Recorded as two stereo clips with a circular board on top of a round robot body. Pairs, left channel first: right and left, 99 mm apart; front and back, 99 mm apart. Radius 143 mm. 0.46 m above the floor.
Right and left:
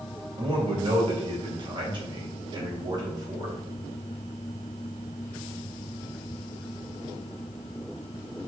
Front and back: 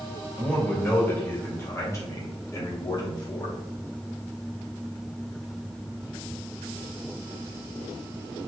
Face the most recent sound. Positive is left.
turn(degrees=40)